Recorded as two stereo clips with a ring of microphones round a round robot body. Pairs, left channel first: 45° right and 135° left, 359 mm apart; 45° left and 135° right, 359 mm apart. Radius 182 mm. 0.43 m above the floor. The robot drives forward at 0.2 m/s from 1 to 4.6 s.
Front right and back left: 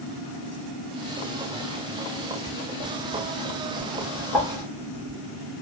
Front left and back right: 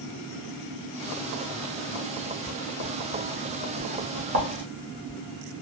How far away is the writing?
About 0.8 m.